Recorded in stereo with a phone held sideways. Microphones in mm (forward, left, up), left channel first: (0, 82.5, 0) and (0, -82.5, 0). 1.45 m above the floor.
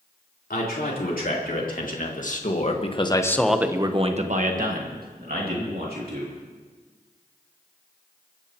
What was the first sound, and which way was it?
A man speaking, 70° left (ahead or behind).